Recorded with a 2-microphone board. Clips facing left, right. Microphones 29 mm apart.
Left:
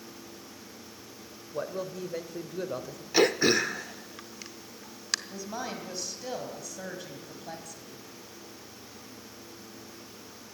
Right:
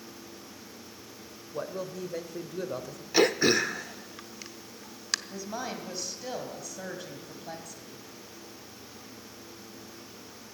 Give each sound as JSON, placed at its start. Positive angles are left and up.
{"t": 1.5, "sound": "a man speaking", "side_deg": 10, "distance_m": 1.2}
{"t": 3.1, "sound": "throat clearing", "side_deg": 0, "distance_m": 0.6}
{"t": 5.3, "sound": "a woman speaking", "side_deg": -5, "distance_m": 2.0}